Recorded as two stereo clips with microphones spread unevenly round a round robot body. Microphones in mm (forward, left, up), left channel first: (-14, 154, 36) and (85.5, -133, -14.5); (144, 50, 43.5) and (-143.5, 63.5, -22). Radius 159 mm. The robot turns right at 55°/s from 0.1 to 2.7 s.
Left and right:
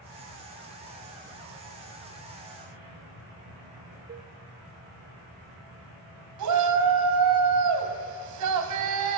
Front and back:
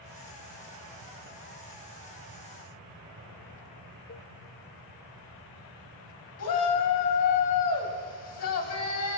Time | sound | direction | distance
4.1 | a cowbell | 40° right | 1.5 m
6.4 | a shout | 50° right | 3 m